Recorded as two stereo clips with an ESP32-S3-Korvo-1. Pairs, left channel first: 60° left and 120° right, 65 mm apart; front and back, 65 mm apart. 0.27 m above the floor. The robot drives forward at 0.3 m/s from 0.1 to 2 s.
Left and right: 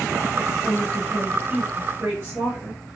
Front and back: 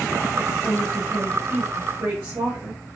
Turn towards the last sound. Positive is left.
turn(degrees=-150)